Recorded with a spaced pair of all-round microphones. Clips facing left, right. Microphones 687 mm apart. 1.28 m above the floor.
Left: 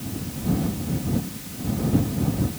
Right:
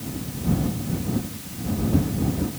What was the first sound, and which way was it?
Only background noise.